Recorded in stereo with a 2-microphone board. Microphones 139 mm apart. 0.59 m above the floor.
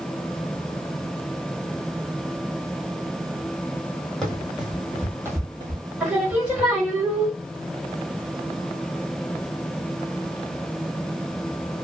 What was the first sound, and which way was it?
Running footsteps, 5° left (ahead or behind).